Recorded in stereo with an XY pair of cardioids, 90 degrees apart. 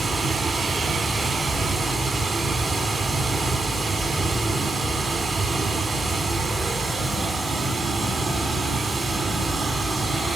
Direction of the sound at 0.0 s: 45° right.